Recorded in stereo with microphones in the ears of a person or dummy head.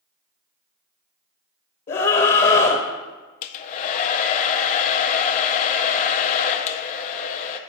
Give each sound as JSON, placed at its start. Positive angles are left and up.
{"t": 1.9, "sound": "a scream", "side_deg": 30, "distance_m": 0.7}
{"t": 3.4, "sound": "a hair dryer", "side_deg": 35, "distance_m": 0.5}